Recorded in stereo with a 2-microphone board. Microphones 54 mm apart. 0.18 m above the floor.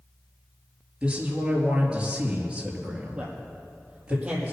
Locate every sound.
1.0 s a man speaking: 20° right (ahead or behind), 4 m
3.1 s a man speaking: 25° right (ahead or behind), 5 m